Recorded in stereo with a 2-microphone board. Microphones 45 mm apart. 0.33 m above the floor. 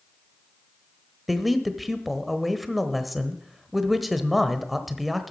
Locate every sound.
1.3 s a man speaking: centre (ahead or behind), 1.0 m